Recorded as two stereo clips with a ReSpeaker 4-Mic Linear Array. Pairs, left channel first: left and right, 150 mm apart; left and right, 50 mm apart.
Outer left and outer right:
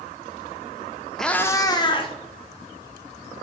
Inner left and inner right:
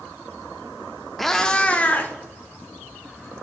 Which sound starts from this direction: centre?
A cat meowing, at 1.2 s.